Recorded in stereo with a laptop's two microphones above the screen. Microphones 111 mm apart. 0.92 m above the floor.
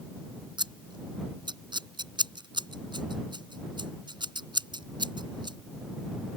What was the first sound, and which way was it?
Scissors, 45° right (ahead or behind).